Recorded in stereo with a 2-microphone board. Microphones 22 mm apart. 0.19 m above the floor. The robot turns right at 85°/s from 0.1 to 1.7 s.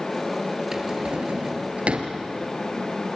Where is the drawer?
20° right (ahead or behind), 2.5 m; by 2.1 s 65° right (ahead or behind), 2.5 m.